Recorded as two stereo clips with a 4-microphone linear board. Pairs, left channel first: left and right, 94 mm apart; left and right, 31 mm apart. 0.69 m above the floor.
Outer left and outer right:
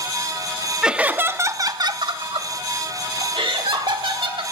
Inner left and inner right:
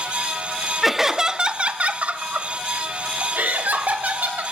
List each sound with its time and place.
0.8 s laughter: 5° right (ahead or behind), 0.8 m; by 4.4 s 70° right (ahead or behind), 1.9 m